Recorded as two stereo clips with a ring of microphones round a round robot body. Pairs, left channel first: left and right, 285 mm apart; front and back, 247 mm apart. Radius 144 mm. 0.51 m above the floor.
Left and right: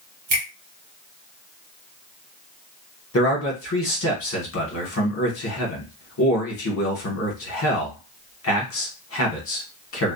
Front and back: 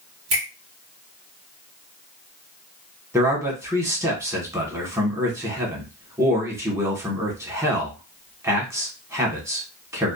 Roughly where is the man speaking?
Left.